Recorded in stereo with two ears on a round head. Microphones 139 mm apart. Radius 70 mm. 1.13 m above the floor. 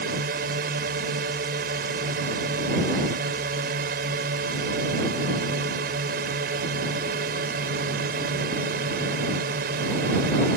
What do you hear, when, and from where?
0.0 s a drone: 65° right (ahead or behind)